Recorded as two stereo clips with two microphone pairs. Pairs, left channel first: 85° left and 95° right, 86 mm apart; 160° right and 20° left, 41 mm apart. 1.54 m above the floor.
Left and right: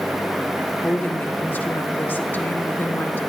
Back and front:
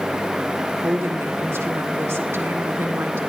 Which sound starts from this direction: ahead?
A woman speaking, at 0.8 s.